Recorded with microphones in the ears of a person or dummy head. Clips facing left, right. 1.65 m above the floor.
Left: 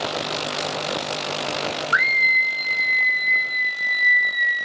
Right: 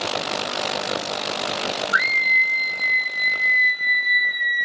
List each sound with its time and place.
1.9 s a scream: 65° left (ahead or behind), 1.5 m; by 4.7 s 10° right (ahead or behind), 1.1 m